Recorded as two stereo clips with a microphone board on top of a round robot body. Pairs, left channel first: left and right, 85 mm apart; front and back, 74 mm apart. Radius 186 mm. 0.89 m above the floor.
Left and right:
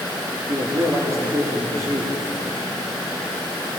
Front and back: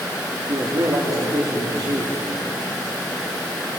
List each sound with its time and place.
0.5 s a man speaking: 145° right, 3 m